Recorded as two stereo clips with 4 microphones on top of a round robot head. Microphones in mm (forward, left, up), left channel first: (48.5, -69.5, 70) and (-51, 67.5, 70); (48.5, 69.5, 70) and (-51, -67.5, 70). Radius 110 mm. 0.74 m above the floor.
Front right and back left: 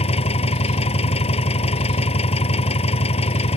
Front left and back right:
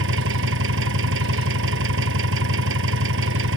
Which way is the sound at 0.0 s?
115° right.